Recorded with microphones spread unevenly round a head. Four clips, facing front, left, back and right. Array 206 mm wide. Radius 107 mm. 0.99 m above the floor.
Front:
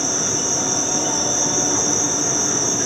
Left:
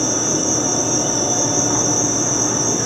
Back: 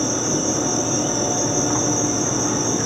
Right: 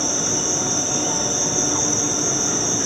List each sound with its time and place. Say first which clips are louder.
0.0 s an insect: left 5 dB, back 4 dB; 120° left, 0.7 m